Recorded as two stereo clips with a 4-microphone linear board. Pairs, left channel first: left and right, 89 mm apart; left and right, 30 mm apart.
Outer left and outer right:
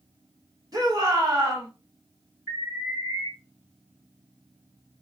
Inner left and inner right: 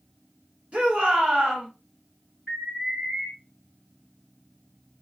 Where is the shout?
45° right (ahead or behind), 1.5 m.